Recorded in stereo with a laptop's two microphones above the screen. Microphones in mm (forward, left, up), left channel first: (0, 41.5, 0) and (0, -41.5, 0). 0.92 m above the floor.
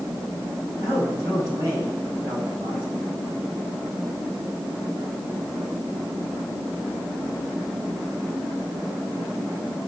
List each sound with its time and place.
0.8 s a man speaking: 40° right (ahead or behind), 7.5 m